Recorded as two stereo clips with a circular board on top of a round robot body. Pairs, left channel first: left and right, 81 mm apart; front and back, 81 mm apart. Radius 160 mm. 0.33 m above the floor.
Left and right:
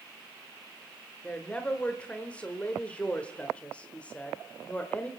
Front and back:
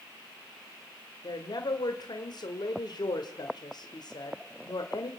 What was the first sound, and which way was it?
A woman speaking, 15° left.